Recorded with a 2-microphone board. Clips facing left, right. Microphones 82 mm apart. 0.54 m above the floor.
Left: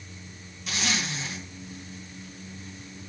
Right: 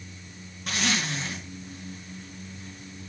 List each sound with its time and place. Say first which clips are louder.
0.7 s a zipper: right 2 dB; 50° right (ahead or behind), 2 m